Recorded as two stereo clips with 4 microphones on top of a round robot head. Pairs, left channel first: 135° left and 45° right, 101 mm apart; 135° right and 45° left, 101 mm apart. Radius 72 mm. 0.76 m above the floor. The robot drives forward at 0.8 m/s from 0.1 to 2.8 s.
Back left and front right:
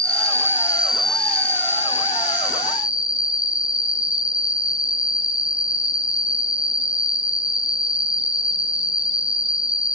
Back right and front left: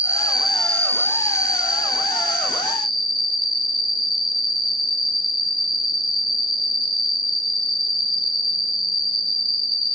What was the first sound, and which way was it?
An insect, 20° right.